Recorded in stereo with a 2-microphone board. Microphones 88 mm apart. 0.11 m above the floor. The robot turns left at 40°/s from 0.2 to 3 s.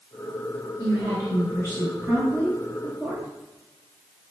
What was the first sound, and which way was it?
A woman speaking, 25° right (ahead or behind).